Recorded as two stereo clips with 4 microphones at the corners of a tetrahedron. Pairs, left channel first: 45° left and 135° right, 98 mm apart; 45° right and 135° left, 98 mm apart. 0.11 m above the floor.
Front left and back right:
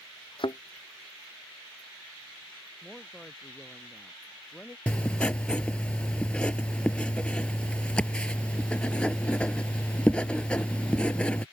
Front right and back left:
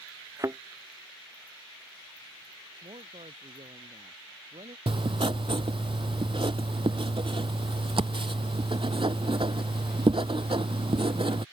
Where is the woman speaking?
130° left.